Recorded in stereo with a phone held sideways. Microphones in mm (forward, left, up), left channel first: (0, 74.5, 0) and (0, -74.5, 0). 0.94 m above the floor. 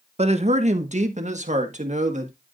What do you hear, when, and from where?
0.2 s a man speaking: 50° right (ahead or behind), 1.0 m; by 2.3 s 55° right (ahead or behind), 2 m